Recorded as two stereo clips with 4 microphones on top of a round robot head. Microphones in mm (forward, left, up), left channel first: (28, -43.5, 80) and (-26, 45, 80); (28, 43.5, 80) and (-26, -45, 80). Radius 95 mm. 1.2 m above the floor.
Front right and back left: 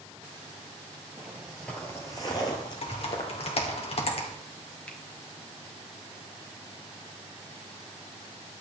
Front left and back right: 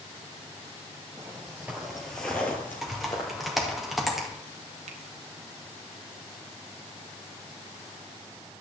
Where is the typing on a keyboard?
35° right, 2 m.